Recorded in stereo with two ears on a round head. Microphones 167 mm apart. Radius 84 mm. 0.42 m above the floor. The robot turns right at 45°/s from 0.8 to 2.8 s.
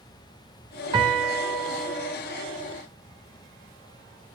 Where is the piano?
25° right, 1.5 m; by 2.2 s 30° left, 1.5 m.